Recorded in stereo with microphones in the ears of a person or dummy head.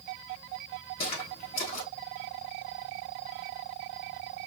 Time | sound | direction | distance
1.0 | footsteps | 35° left (ahead or behind) | 1.5 m